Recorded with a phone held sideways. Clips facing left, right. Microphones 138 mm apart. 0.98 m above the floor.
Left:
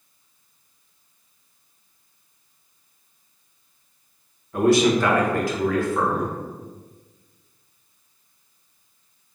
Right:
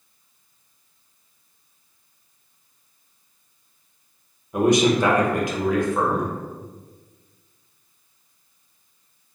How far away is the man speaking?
About 0.8 m.